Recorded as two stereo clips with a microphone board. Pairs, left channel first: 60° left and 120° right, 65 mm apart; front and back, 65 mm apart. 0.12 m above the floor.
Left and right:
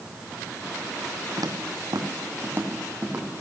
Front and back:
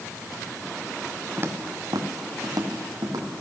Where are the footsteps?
120° right, 1.4 m; by 3.4 s 165° left, 2.5 m.